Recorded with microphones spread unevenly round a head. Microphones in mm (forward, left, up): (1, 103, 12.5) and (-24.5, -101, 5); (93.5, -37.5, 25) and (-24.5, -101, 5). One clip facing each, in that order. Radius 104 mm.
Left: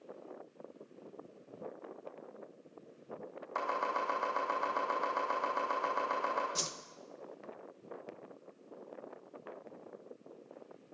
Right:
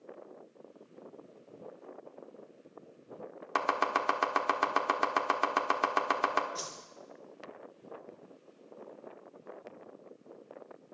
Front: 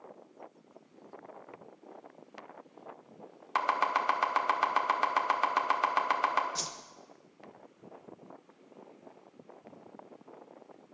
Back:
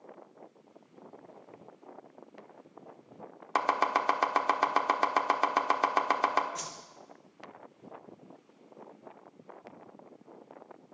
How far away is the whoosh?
About 0.9 m.